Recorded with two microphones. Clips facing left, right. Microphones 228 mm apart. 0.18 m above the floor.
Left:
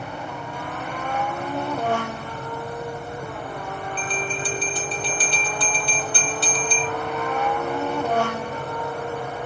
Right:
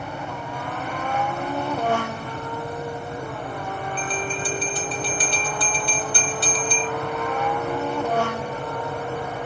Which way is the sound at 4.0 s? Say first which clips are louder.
Even; 50° right (ahead or behind).